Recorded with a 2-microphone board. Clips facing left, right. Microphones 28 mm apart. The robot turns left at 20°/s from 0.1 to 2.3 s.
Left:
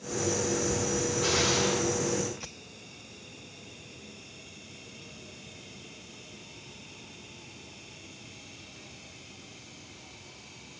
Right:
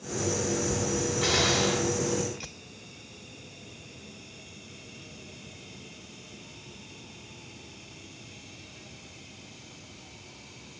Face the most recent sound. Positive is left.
turn(degrees=-75)  # may be behind; listen again after turning